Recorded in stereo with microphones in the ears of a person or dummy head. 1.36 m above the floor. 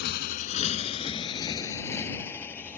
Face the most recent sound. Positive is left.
turn(degrees=15)  # may be behind; listen again after turning